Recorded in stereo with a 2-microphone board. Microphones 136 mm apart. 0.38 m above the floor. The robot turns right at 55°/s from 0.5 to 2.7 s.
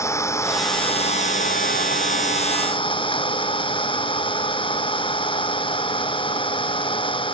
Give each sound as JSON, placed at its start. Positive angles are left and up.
{"t": 0.0, "sound": "an engine running", "azimuth_deg": 20}